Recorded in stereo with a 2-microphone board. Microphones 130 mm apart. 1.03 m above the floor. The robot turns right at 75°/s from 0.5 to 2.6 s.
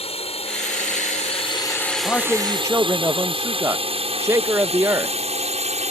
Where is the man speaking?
160° left; by 5.2 s 155° right.